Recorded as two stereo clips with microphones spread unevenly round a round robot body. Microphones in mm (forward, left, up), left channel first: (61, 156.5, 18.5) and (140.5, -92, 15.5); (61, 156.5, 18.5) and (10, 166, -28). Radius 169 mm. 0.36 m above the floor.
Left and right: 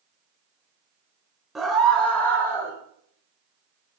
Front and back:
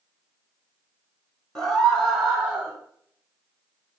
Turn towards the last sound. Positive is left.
turn(degrees=-175)